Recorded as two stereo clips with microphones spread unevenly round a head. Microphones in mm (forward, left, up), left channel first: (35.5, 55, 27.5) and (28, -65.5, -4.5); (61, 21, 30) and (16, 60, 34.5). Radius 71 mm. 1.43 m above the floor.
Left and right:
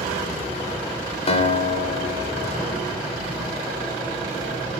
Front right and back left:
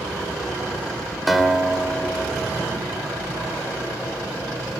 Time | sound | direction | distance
1.3 | a guitar | 50° left | 3 m